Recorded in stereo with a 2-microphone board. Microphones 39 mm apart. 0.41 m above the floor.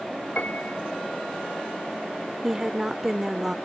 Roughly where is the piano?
Left.